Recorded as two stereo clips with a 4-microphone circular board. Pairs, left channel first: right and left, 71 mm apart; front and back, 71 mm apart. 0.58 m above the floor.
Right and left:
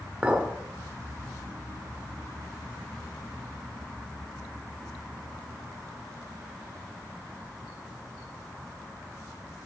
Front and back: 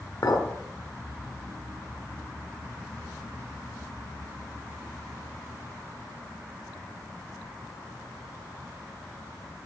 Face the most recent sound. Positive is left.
turn(degrees=20)